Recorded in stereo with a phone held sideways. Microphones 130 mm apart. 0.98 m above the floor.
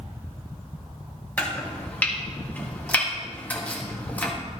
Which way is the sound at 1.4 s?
10° left (ahead or behind).